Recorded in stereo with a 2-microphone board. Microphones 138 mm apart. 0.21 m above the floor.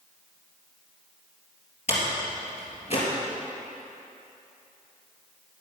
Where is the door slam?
50° left (ahead or behind), 3 m.